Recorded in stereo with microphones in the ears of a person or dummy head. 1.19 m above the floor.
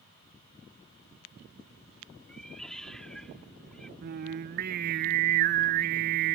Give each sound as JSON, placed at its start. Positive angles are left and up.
{"t": 2.3, "sound": "a cat meowing", "side_deg": 5}
{"t": 4.0, "sound": "singing", "side_deg": -55}